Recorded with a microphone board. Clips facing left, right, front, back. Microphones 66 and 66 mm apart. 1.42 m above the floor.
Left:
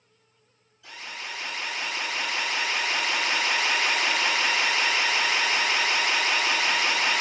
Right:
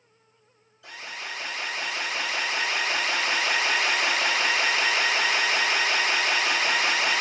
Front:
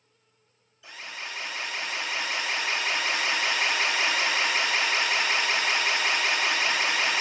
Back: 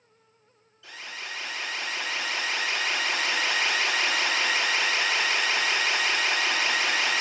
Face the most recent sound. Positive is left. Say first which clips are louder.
# right 1 dB, even
turn(degrees=-75)